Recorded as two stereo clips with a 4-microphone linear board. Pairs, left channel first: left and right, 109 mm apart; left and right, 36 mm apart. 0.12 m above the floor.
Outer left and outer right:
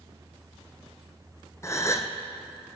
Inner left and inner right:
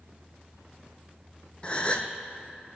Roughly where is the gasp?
Left.